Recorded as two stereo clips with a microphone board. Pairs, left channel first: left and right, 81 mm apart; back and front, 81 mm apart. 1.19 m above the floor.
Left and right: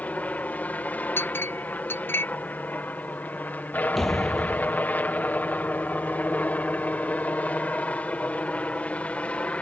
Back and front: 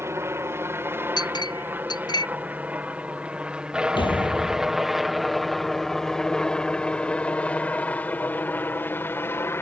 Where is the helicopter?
30° left; by 9.6 s 150° left.